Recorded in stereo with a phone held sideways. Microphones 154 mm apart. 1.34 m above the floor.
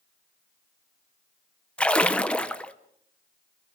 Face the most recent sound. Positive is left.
turn(degrees=5)  # may be behind; listen again after turning